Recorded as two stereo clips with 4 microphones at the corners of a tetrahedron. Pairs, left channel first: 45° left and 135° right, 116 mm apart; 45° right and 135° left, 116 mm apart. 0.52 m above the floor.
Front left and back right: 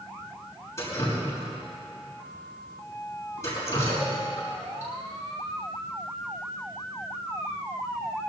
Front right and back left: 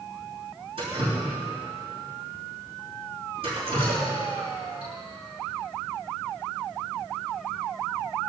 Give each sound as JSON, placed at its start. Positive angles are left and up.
{"t": 0.8, "sound": "dripping", "azimuth_deg": 105, "distance_m": 7.0}